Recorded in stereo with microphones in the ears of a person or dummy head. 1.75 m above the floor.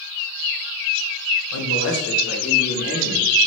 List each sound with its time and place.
1.5 s a man speaking: 70° left (ahead or behind), 1.2 m; by 3.3 s 40° left (ahead or behind), 1.8 m